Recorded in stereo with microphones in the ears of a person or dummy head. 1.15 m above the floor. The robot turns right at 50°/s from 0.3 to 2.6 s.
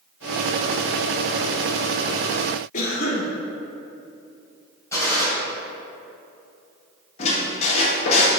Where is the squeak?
35° left (ahead or behind), 1.1 m.